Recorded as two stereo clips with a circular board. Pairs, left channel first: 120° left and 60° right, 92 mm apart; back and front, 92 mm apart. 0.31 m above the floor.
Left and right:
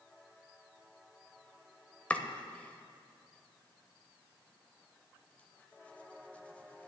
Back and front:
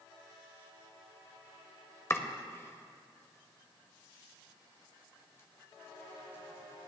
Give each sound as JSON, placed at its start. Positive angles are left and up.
{"t": 2.1, "sound": "chopping", "azimuth_deg": 175, "distance_m": 1.0}